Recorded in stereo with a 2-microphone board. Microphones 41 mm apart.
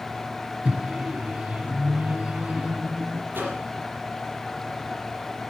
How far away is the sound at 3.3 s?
About 4.5 m.